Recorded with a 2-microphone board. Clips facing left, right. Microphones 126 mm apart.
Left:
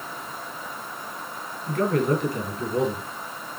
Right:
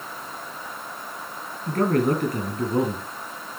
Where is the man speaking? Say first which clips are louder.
Right 1 dB; 55° right (ahead or behind), 2.5 m.